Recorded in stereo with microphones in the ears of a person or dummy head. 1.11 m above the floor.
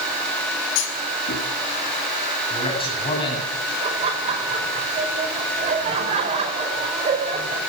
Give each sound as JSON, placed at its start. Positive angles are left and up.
{"t": 0.8, "sound": "a clunk", "side_deg": 75, "distance_m": 6.0}
{"t": 2.5, "sound": "a man speaking", "side_deg": 30, "distance_m": 9.5}
{"t": 3.8, "sound": "laughter", "side_deg": -30, "distance_m": 5.0}